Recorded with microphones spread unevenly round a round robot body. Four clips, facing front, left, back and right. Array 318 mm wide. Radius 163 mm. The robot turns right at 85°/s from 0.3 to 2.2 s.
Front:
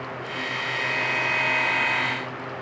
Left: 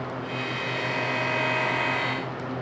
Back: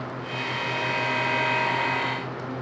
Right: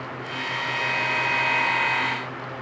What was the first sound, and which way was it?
Only background noise.